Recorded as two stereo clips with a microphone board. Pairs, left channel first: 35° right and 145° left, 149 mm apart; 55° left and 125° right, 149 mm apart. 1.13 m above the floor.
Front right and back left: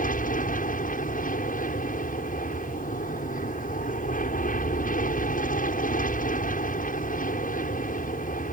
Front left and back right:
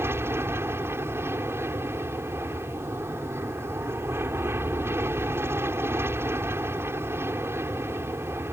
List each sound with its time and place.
0.0 s an aircraft: 50° right